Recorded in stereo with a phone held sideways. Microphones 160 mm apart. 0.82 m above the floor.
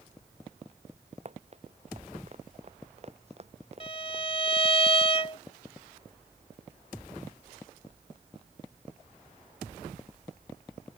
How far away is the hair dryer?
No hair dryer in this recording.